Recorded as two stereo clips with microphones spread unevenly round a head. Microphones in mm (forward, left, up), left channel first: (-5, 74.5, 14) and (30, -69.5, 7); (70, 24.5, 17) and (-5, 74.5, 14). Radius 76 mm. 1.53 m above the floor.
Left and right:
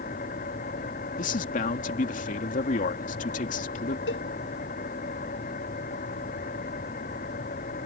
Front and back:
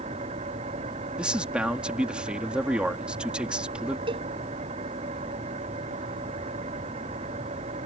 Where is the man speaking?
65° left.